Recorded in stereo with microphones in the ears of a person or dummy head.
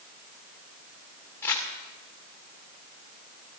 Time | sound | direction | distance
1.4 | crumpling | 5° left (ahead or behind) | 2 m